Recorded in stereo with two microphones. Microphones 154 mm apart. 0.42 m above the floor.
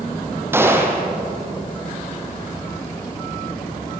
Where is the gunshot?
15° right (ahead or behind), 3.5 m.